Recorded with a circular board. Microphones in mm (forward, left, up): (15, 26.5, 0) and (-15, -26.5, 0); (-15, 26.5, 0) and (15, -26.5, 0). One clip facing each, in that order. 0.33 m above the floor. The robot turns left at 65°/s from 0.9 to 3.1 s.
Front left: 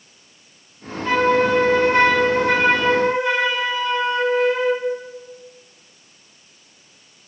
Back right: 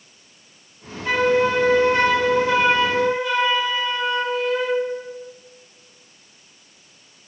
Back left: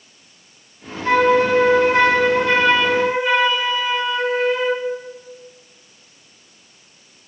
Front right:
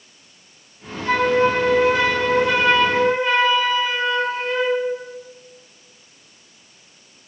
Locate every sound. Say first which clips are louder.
1.1 s a flute: front left 1 dB, back left 3 dB; 170° left, 2.5 m; by 4.9 s 40° left, 2.5 m